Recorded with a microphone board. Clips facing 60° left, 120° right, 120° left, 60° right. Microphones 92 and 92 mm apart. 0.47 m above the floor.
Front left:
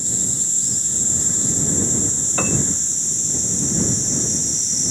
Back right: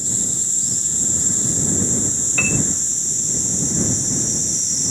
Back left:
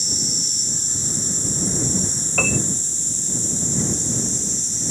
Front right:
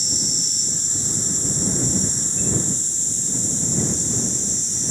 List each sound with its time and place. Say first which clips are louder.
2.4 s a piano: front left 1 dB, back left 3 dB; 120° left